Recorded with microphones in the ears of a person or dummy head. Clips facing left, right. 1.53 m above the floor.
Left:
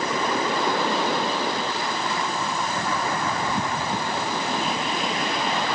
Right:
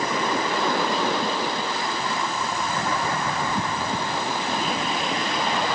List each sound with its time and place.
Only background noise.